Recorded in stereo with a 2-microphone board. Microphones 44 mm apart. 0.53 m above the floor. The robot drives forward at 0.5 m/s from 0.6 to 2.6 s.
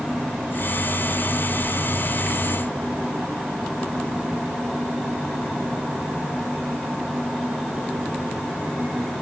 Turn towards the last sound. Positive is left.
No sound to turn to.